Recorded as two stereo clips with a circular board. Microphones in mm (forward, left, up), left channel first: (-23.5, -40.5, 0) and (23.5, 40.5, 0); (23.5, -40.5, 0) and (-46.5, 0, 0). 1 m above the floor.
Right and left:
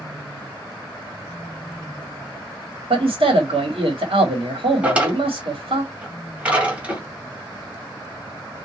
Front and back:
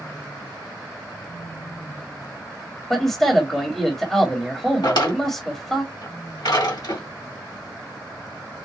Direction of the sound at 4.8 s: 15° right.